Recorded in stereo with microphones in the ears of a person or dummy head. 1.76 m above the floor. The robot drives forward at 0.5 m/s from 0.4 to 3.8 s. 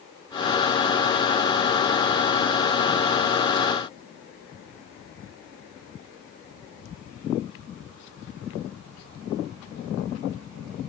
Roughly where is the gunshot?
I don't hear a gunshot.